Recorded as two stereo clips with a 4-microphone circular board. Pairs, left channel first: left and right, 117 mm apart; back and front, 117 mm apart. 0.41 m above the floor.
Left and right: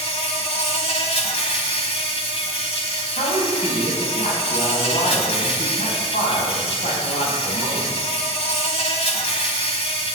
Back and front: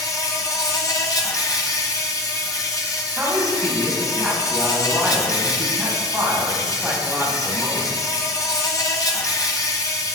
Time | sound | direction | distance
0.0 | an insect | 120° left | 1.3 m
3.2 | a woman speaking | 85° left | 3 m